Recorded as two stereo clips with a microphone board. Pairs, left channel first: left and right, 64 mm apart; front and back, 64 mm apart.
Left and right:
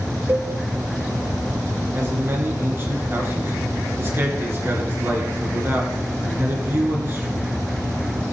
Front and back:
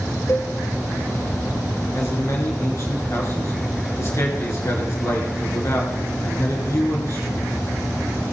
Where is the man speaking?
40° right, 3.5 m.